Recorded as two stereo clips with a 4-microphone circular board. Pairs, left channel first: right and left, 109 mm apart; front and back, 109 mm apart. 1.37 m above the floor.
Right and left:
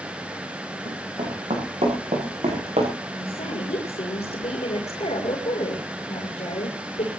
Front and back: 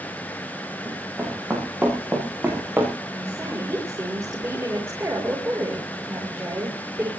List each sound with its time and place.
0.8 s running footsteps: 110° left, 8.5 m; by 2.9 s 105° left, 5.5 m
3.1 s a woman speaking: 115° right, 5.5 m